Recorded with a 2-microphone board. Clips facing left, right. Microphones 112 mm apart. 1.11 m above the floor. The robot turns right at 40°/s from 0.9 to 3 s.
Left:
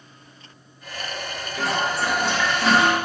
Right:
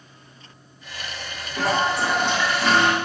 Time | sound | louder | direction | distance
1.6 | a toilet flushing | right 3 dB | 45° right | 0.6 m